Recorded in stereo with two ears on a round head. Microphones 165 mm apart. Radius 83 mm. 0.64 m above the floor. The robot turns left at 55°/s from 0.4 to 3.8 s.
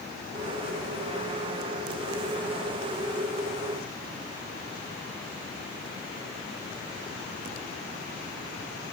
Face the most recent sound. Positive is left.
No sound to turn to.